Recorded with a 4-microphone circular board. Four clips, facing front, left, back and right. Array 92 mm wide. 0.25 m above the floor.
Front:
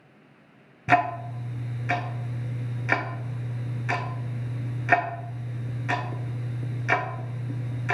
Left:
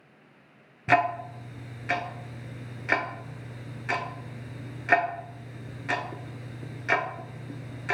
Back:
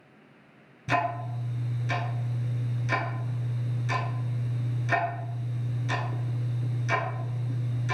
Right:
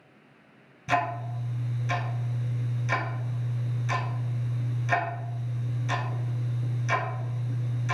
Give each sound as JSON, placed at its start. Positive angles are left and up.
{"t": 0.9, "sound": "ticking", "azimuth_deg": 40, "distance_m": 0.5}